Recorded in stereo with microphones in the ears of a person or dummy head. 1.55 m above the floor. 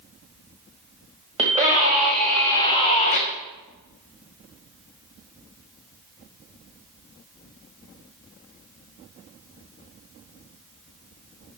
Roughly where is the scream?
Right.